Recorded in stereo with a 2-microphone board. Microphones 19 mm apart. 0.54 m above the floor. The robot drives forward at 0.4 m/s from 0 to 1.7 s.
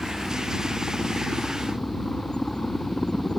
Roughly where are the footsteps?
I don't hear footsteps.